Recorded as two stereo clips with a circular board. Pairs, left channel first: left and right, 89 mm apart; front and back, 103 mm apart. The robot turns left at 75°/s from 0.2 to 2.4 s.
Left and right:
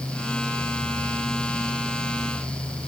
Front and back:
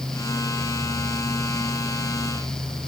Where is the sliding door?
No sliding door in this recording.